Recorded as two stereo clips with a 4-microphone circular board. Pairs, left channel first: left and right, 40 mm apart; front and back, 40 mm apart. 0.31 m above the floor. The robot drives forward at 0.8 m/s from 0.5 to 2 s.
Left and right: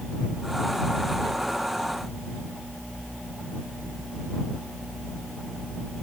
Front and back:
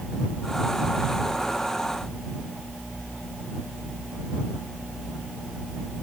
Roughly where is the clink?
I don't hear a clink.